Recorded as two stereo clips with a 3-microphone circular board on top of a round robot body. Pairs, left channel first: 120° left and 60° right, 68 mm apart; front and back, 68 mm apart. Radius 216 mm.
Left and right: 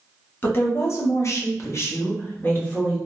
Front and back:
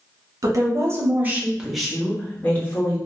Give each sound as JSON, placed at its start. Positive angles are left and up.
{"t": 0.4, "sound": "a woman speaking", "azimuth_deg": 165, "distance_m": 1.2}